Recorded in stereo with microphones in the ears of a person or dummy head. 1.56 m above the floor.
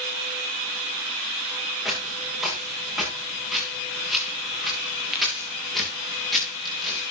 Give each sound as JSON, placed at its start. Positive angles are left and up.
{"t": 1.9, "sound": "footsteps", "side_deg": -5, "distance_m": 4.5}